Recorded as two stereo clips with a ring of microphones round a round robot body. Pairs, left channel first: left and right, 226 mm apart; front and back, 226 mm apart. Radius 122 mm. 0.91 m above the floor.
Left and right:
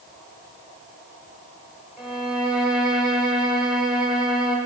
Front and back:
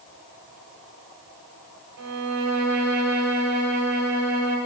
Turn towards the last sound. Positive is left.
turn(degrees=-175)